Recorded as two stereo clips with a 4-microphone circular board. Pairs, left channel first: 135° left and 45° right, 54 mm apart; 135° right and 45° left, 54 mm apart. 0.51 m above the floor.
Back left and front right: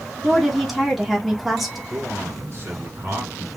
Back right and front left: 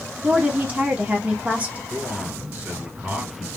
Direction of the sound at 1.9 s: 10° right.